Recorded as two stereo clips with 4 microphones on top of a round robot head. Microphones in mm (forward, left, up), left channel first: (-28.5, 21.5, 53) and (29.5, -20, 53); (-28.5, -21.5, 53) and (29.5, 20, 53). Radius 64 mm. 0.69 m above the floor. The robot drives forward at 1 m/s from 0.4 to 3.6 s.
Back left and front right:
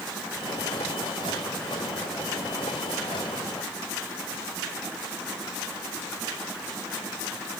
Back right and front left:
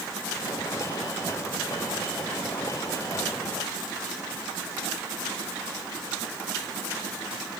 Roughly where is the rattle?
I don't hear a rattle.